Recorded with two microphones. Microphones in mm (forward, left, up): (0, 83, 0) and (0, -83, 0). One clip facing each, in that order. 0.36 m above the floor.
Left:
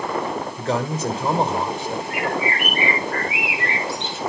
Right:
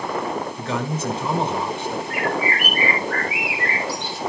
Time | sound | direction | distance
0.6 | a man speaking | 40° left (ahead or behind) | 1.6 m
2.1 | a bird | 25° left (ahead or behind) | 1.9 m